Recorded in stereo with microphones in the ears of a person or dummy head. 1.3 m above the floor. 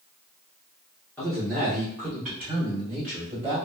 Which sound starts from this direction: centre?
A man speaking, at 1.2 s.